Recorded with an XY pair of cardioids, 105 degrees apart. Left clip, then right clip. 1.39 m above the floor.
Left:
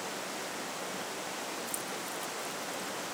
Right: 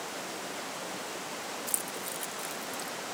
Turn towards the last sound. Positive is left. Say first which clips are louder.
# right 1 dB
turn(degrees=-55)